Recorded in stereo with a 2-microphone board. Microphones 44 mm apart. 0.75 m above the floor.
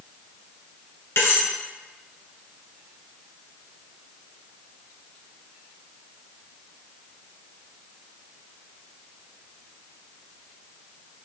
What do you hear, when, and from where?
1.2 s cutlery clinking: 75° left (ahead or behind), 1.7 m